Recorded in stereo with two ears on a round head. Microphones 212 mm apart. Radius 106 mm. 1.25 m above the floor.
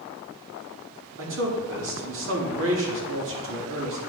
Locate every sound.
1.2 s a man speaking: 60° right (ahead or behind), 2 m